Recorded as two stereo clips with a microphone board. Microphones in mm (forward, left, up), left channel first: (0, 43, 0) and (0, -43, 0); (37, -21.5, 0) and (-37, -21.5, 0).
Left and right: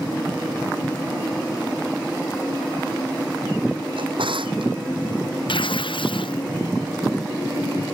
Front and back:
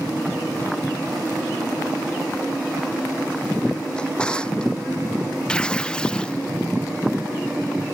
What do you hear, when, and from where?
4.0 s a drawer: 80° right
5.5 s tearing paper: 75° left